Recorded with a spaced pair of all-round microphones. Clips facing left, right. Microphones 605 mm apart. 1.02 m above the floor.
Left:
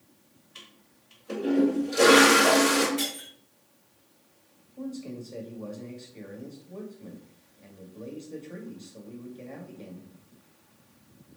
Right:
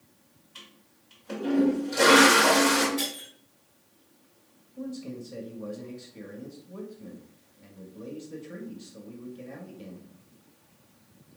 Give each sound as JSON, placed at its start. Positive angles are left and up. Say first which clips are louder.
{"t": 0.6, "sound": "a toilet flushing", "louder": "right 1 dB", "side_deg": -15, "distance_m": 1.8}
{"t": 3.0, "sound": "breaking glass", "louder": "left 1 dB", "side_deg": -60, "distance_m": 3.5}
{"t": 4.8, "sound": "a man speaking", "louder": "even", "side_deg": -40, "distance_m": 1.7}